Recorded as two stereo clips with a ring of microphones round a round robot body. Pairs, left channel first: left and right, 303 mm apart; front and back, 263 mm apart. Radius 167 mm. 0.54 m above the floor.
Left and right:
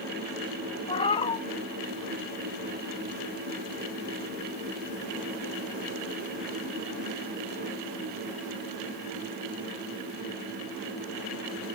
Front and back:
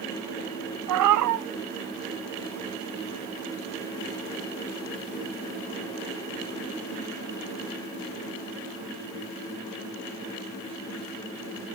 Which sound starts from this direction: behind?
A cat meowing, at 0.9 s.